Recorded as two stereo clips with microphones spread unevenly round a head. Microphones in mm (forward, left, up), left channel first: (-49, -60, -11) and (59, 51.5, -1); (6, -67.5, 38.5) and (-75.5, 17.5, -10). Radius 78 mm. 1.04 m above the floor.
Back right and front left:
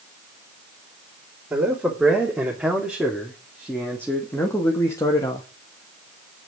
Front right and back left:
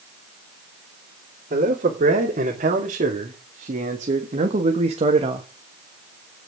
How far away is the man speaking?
About 3 m.